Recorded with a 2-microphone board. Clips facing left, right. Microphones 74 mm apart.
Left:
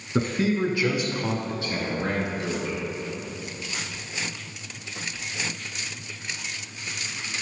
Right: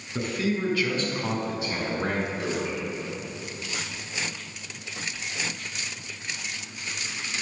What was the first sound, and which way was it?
A man speaking, 40° left (ahead or behind).